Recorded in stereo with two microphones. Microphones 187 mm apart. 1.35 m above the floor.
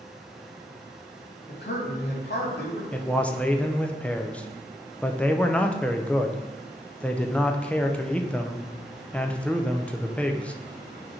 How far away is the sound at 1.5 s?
About 2 m.